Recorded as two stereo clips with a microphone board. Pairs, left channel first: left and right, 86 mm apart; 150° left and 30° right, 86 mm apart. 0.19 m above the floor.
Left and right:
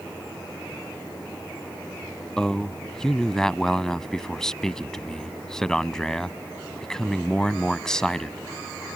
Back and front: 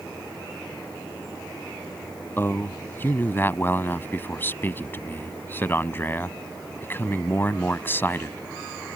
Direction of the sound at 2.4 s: 165° left.